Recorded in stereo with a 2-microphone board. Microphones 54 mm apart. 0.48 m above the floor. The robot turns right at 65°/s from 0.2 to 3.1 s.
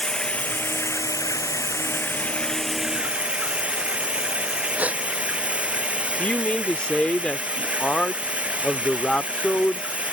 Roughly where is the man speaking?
Left.